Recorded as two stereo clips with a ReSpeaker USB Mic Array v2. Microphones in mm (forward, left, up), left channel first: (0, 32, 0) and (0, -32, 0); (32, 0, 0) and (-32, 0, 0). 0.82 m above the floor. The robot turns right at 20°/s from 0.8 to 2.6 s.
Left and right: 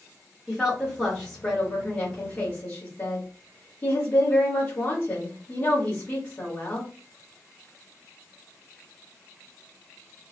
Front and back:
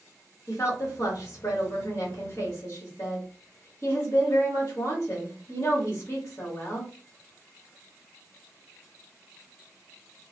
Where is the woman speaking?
10° left, 1.9 m; by 6.9 s 45° left, 1.9 m.